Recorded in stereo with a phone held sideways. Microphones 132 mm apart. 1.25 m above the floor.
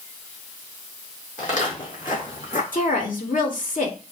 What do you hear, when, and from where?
1.4 s footsteps: 65° left (ahead or behind), 4 m
2.7 s a woman speaking: 75° left (ahead or behind), 2.5 m